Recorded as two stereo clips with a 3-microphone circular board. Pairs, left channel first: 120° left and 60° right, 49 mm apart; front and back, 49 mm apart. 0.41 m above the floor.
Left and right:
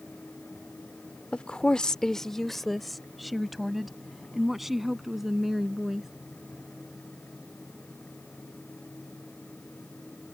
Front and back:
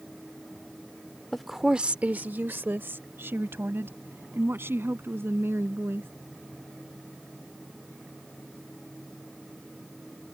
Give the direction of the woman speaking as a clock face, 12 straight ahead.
9 o'clock.